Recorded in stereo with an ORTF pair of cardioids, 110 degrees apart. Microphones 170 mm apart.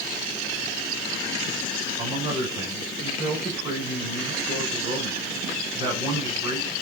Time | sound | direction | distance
2.0 | a man speaking | 30° right | 6 m